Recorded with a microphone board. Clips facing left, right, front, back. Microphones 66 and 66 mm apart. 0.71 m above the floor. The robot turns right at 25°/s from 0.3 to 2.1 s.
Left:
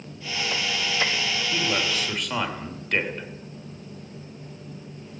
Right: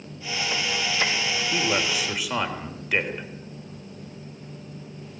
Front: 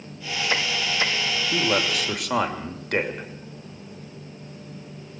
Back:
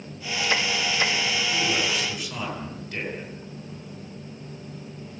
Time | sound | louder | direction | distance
1.5 | a man speaking | right 2 dB, front 5 dB | 20° right | 3 m